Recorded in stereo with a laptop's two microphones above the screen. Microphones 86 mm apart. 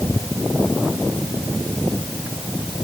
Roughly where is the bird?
I don't hear a bird.